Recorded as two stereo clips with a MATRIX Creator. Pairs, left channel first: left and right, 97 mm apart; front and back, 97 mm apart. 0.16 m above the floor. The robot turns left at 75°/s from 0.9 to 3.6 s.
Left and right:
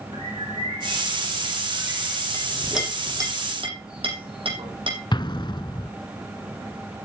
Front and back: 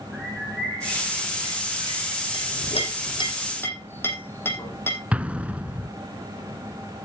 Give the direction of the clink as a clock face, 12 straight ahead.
11 o'clock.